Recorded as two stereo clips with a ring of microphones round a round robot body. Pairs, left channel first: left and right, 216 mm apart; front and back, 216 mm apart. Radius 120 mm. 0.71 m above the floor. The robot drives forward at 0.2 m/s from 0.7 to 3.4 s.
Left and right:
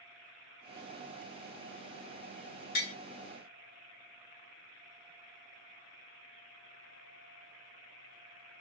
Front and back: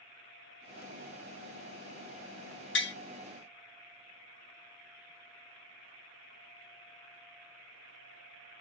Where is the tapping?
35° left, 0.9 m.